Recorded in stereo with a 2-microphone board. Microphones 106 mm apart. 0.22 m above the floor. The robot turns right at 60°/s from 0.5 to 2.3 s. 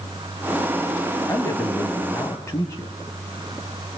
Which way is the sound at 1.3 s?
65° left.